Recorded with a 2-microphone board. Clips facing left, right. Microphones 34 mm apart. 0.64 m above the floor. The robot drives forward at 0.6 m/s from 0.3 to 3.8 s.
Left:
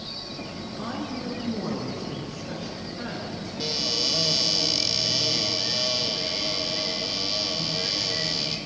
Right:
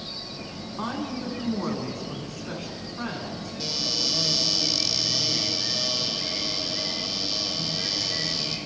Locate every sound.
0.8 s a woman speaking: 65° right (ahead or behind), 7.5 m; by 3.5 s 55° right (ahead or behind), 8.5 m
3.6 s a cupboard door: 15° left (ahead or behind), 3.5 m